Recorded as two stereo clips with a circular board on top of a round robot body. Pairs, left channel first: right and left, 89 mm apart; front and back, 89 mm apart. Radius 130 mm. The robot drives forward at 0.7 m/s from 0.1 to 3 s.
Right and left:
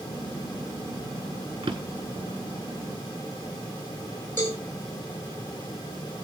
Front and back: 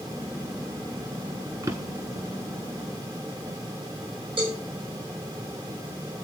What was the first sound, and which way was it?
A drawer, 130° left.